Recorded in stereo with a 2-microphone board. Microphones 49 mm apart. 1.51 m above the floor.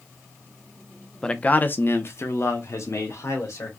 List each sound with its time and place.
1.2 s a man speaking: 15° left (ahead or behind), 0.6 m; by 3.7 s 75° left (ahead or behind), 1.9 m